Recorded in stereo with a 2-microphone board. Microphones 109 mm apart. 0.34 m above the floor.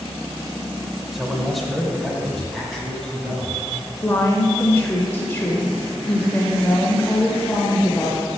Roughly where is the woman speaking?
Left.